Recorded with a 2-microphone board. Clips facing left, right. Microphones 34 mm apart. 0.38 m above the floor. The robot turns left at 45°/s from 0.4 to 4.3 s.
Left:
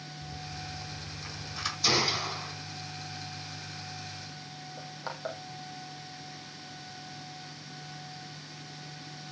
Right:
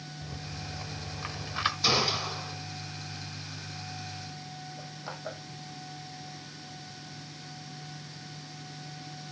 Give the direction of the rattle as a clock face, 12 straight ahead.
3 o'clock.